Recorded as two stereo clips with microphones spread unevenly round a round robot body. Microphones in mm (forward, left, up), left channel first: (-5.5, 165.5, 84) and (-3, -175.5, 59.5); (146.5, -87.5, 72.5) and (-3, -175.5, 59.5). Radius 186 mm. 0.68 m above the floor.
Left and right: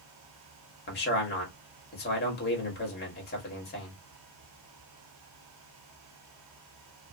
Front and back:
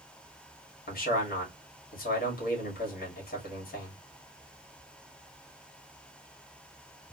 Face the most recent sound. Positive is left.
turn(degrees=35)